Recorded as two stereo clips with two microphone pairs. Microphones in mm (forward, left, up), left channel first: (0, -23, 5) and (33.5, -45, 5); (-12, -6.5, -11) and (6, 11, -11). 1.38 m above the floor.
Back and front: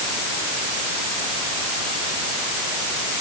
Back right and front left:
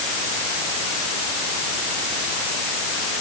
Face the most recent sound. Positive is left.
No sound to turn to.